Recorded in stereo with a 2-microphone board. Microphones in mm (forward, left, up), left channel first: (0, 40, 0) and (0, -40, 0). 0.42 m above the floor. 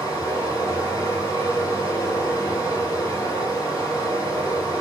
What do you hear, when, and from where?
0.0 s running water: 50° left (ahead or behind), 1.3 m